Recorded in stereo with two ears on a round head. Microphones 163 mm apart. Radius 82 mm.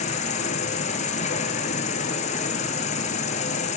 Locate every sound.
0.0 s an insect: 40° left (ahead or behind), 2.5 m